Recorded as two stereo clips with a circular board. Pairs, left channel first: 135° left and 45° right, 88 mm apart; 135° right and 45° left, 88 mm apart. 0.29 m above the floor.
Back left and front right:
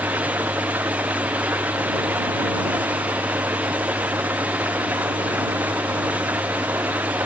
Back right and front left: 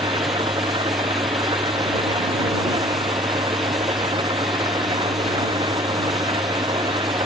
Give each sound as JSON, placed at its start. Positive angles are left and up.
{"t": 0.0, "sound": "an engine running", "azimuth_deg": 20}